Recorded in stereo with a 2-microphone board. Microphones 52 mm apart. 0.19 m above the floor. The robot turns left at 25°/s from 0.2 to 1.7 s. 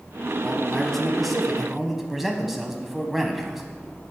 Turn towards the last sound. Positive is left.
turn(degrees=-5)  # may be behind; listen again after turning